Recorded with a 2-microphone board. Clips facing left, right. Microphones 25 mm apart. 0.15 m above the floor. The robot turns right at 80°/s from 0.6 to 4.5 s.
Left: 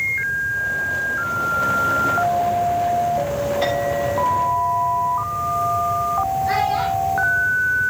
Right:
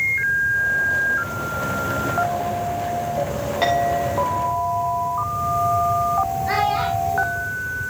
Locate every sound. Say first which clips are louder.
3.6 s a clink: right 5 dB; 135° right, 9 m; by 7.5 s 65° right, 9 m
6.5 s a child speaking: left 1 dB; 15° right (ahead or behind), 2 m